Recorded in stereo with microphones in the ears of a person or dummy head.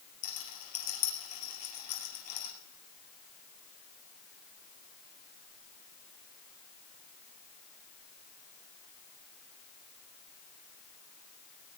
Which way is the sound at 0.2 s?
50° left (ahead or behind).